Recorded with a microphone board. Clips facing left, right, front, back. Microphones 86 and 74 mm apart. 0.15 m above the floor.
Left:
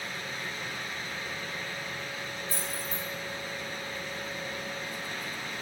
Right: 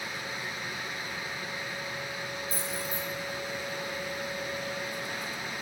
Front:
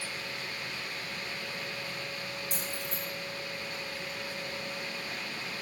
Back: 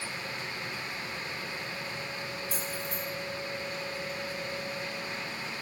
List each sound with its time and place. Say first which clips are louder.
2.5 s keys jangling: right 2 dB, back 2 dB; 80° left, 2.5 m